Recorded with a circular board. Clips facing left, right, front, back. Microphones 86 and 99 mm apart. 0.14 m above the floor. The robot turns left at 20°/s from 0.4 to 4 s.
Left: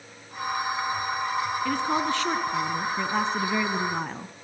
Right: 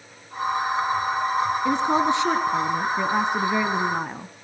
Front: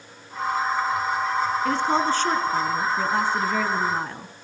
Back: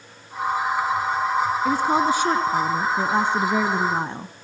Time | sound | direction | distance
1.6 | a woman speaking | 115° right | 1.0 m